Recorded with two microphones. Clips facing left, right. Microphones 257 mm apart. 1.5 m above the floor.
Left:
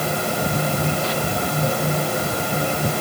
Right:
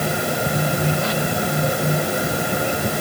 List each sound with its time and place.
Only background noise.